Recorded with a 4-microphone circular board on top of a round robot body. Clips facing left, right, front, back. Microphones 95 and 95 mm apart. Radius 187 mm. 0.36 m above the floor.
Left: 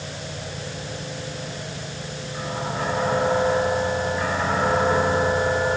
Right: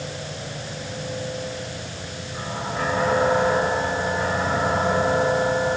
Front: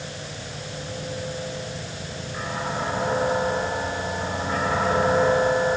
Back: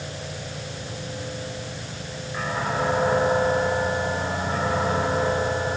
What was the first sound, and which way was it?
Only background noise.